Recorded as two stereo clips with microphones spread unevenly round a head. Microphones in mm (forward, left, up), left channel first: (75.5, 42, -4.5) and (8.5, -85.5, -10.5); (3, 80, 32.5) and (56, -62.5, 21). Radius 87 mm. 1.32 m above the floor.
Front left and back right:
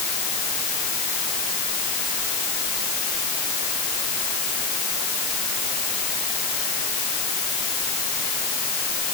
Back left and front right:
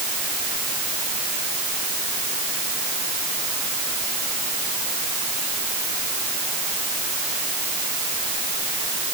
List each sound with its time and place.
Only background noise.